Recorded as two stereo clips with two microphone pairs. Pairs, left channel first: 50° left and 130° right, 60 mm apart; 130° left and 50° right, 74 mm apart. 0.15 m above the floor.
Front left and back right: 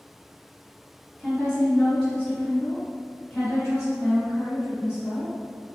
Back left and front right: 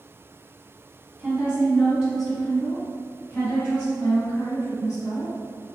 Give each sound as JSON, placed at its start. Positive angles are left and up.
{"t": 1.2, "sound": "a woman speaking", "azimuth_deg": -40, "distance_m": 1.4}